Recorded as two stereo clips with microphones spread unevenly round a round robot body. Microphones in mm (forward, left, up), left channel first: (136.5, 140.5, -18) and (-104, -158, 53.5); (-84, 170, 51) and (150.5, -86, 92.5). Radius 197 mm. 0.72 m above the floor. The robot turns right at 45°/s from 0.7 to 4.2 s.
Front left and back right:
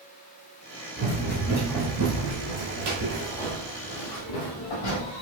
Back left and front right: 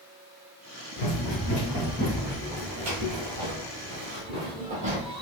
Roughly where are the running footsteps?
Behind left.